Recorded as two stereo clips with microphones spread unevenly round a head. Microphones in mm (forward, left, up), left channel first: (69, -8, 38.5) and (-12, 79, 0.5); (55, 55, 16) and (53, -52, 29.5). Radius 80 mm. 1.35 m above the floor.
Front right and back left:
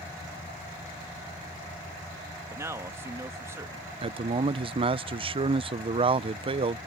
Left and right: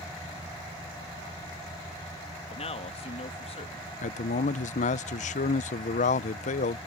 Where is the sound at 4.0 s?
85° left.